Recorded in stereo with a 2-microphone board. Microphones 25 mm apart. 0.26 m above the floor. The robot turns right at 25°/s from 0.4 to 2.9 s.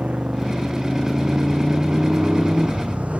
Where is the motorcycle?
70° right (ahead or behind); by 3.2 s 65° right (ahead or behind).